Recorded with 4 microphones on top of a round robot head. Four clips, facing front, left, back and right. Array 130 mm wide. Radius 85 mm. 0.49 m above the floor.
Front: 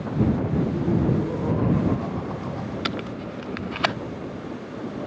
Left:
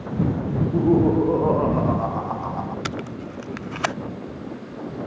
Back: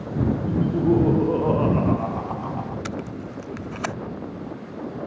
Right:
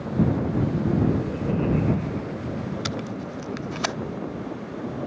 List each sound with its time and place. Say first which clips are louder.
0.5 s laughter: left 5 dB, back 3 dB; 125° left; by 2.8 s 120° left
2.9 s tape being pulled: even, front 1 dB; 45° left